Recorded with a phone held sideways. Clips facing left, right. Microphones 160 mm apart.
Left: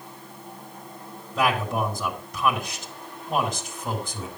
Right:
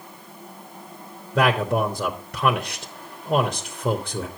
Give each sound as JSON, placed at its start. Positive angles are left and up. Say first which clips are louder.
{"t": 0.0, "sound": "a fan", "louder": "left 1 dB", "side_deg": -5, "distance_m": 5.5}
{"t": 1.4, "sound": "a man speaking", "louder": "right 4 dB", "side_deg": -75, "distance_m": 1.2}